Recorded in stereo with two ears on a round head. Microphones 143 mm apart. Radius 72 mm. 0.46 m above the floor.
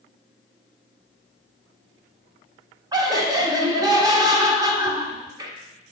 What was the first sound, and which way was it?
Laughter, 25° right (ahead or behind).